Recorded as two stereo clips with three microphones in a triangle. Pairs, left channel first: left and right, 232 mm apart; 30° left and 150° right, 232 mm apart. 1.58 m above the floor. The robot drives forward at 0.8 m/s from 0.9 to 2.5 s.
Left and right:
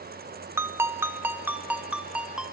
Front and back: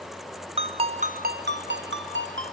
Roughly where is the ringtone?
Behind.